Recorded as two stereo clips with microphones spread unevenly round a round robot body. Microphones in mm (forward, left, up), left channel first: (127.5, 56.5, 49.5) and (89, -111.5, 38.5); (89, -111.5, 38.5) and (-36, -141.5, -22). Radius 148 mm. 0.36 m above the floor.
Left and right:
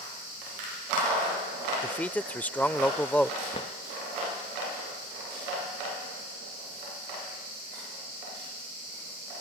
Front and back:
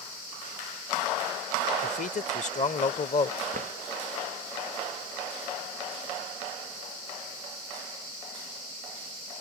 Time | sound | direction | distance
1.8 | a man speaking | 5° right | ?
3.5 | a drawer | 150° left | ?